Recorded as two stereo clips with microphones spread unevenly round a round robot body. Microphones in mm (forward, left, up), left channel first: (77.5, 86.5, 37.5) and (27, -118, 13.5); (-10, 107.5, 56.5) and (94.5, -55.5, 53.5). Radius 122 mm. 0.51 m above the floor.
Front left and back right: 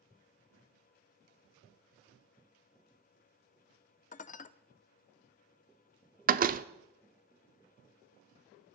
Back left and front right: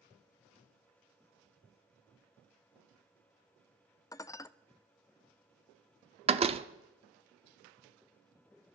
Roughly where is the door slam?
Right.